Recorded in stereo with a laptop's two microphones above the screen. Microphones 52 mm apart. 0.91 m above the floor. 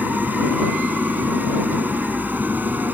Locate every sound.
0.0 s an engine running: 35° right (ahead or behind)